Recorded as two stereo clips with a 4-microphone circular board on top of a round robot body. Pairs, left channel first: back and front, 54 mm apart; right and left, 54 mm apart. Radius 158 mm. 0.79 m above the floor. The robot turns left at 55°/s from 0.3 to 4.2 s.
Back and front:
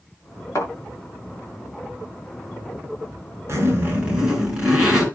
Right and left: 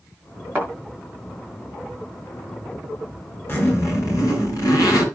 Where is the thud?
145° left, 6.5 m; by 0.7 s 140° left, 6.5 m.